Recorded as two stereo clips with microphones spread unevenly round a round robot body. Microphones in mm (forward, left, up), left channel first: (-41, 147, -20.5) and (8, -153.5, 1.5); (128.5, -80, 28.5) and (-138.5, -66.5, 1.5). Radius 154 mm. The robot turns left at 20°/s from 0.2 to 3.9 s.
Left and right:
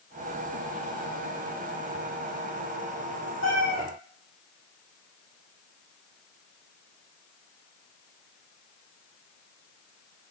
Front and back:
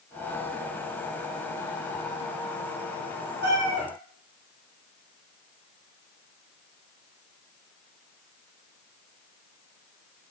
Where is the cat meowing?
130° right, 6 m; by 3.9 s 140° right, 6 m.